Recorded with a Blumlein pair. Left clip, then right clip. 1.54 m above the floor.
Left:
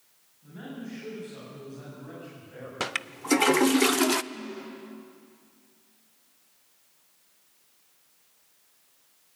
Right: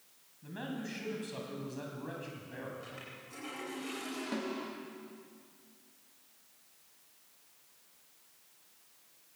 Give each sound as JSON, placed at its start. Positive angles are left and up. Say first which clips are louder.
{"t": 0.4, "sound": "a man speaking", "louder": "even", "azimuth_deg": -65, "distance_m": 9.0}
{"t": 2.8, "sound": "a toilet flushing", "louder": "left 15 dB", "azimuth_deg": 45, "distance_m": 0.6}
{"t": 4.3, "sound": "a snare drum", "louder": "right 1 dB", "azimuth_deg": -45, "distance_m": 3.0}